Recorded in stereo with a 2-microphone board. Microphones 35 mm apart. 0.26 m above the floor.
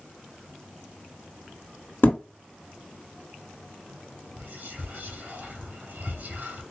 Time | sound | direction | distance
2.0 | a thud | 70° left (ahead or behind) | 1.4 m
4.4 | whispering | 55° right (ahead or behind) | 3 m